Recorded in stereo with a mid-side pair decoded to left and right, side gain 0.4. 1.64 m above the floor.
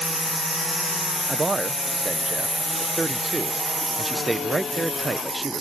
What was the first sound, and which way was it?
A man speaking, 25° right.